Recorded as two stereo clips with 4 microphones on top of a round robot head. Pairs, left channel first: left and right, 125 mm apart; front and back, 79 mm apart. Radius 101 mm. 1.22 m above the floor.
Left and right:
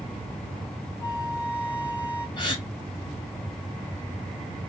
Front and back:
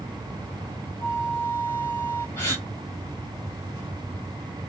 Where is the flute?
35° left, 1.9 m.